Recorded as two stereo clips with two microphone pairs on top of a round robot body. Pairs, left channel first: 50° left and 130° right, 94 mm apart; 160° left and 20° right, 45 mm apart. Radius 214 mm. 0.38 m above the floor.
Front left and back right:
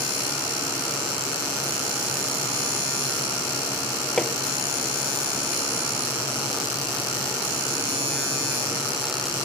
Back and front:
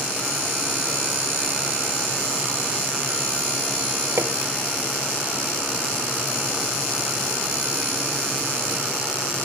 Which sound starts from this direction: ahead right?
Hammering, at 4.2 s.